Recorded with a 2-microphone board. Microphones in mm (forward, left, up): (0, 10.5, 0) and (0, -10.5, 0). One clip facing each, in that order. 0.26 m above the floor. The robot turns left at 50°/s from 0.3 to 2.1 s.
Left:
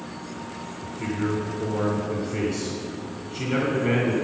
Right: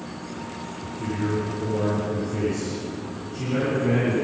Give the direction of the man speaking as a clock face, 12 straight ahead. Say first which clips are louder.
Left 1 dB; 8 o'clock.